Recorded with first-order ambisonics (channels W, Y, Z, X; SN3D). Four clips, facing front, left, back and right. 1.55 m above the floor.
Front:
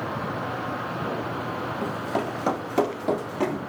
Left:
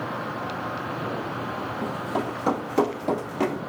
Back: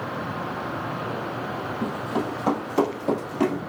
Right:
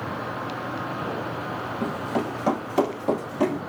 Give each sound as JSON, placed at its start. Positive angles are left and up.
{"t": 1.8, "sound": "running footsteps", "azimuth_deg": -25, "distance_m": 1.8}